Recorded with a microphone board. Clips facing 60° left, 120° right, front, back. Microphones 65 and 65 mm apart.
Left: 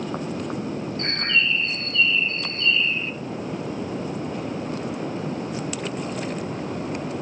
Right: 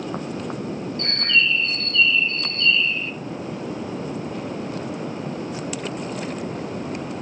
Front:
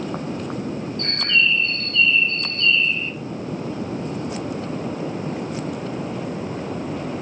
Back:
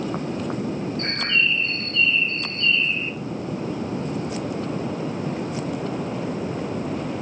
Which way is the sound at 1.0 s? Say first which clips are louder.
Right 2 dB, front 3 dB; 120° left.